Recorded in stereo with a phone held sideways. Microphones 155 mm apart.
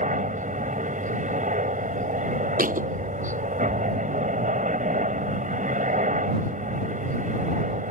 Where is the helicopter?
60° right (ahead or behind).